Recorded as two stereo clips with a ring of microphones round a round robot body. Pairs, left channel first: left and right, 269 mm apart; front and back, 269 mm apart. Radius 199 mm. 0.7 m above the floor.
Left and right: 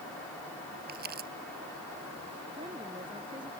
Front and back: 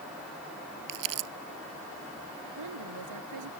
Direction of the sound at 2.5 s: 170° right.